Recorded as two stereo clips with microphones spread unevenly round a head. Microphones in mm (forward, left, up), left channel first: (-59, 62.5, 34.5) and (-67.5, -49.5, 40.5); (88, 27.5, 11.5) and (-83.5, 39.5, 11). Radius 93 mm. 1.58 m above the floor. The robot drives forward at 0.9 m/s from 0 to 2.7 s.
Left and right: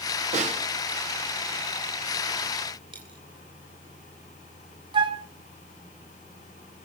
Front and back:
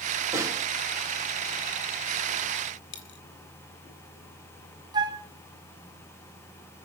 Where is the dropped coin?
30° right, 2.5 m.